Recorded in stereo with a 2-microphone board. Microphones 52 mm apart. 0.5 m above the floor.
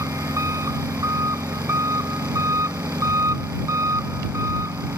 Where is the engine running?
85° right.